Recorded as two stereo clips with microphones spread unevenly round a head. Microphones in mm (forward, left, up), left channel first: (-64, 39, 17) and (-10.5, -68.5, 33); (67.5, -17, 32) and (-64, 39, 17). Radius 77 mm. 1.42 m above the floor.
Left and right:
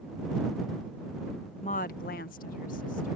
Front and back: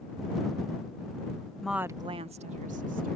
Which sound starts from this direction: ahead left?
A woman speaking, at 1.6 s.